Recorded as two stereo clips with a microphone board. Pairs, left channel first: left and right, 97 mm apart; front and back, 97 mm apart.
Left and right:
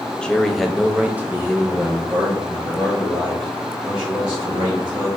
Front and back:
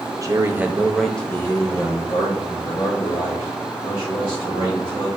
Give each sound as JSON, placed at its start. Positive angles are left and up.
{"t": 0.2, "sound": "a man speaking", "azimuth_deg": 165, "distance_m": 0.7}